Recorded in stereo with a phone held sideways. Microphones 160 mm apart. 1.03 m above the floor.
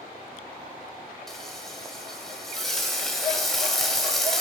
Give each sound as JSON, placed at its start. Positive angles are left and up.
{"t": 1.3, "sound": "frying", "side_deg": 0, "distance_m": 1.4}